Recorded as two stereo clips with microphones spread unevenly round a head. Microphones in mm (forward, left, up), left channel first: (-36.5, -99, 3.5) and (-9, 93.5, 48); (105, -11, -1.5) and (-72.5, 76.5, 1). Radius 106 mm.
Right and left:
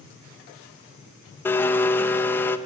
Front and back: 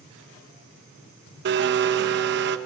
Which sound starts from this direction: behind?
A blender, at 1.4 s.